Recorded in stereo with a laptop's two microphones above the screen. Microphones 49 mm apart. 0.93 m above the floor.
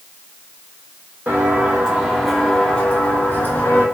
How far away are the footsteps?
About 1.3 m.